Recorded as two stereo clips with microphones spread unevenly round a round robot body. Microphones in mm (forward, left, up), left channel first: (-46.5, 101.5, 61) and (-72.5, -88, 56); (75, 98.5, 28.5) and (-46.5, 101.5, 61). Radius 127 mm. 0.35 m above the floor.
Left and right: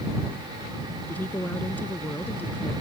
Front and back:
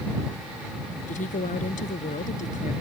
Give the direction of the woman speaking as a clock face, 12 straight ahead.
12 o'clock.